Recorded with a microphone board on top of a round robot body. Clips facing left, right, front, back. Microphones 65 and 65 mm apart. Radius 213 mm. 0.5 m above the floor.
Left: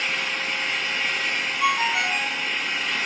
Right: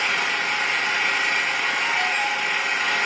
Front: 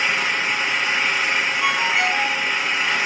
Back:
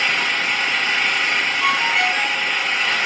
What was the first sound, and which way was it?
An engine running, 70° right.